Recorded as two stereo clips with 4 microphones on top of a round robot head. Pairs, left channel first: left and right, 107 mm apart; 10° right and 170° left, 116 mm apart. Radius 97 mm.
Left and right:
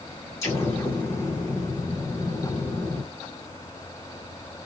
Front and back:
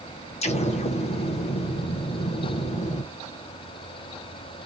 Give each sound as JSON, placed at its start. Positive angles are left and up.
{"t": 0.4, "sound": "an explosion", "azimuth_deg": 25, "distance_m": 0.7}